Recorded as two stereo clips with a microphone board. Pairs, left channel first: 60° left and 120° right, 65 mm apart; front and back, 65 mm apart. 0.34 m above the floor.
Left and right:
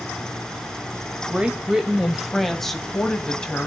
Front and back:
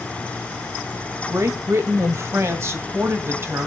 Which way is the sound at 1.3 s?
175° left.